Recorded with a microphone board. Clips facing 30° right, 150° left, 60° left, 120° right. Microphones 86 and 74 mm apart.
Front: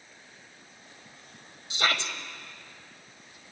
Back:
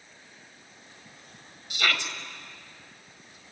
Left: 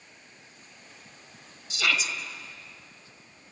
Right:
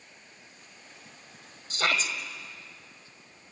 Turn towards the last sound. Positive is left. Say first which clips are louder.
# front 1 dB, even
turn(degrees=-85)